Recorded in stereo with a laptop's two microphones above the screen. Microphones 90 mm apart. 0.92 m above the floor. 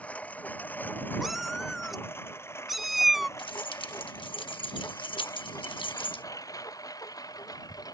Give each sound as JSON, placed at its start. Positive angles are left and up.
{"t": 0.0, "sound": "a lawn mower", "side_deg": 15}
{"t": 1.2, "sound": "a cat meowing", "side_deg": 0}
{"t": 3.4, "sound": "keys jangling", "side_deg": 70}